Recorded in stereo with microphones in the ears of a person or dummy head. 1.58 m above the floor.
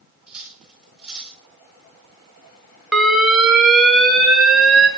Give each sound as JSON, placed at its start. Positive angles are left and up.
{"t": 0.3, "sound": "cutlery clinking", "side_deg": -5, "distance_m": 5.5}
{"t": 2.9, "sound": "an alarm", "side_deg": 0, "distance_m": 3.5}